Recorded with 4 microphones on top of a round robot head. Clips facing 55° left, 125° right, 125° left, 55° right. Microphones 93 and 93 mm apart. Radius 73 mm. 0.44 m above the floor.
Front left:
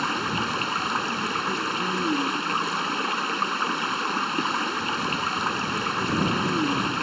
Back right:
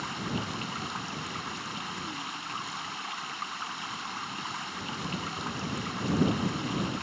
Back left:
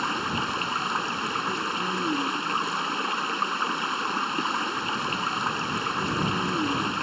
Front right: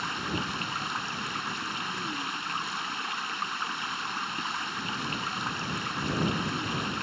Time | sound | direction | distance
0.0 | running water | 80° left | ?